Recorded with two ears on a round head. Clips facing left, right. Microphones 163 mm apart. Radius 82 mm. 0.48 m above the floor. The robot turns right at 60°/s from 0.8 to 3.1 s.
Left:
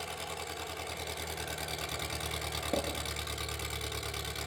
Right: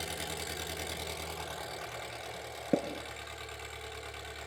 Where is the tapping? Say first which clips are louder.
Right 4 dB; 35° right (ahead or behind), 2.5 m; by 2.9 s 30° right (ahead or behind), 2.5 m.